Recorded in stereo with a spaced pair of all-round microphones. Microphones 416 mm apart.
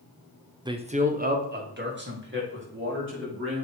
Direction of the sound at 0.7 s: 10° right (ahead or behind).